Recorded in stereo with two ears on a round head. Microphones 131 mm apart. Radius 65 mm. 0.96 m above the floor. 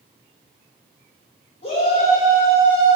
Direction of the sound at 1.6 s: 45° left (ahead or behind).